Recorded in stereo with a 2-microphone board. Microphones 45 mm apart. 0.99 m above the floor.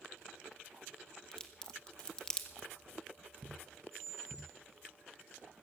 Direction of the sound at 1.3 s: 15° left (ahead or behind).